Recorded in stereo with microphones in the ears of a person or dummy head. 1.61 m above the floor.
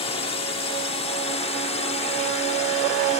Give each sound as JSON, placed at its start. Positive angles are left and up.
{"t": 0.0, "sound": "a drone", "side_deg": 30}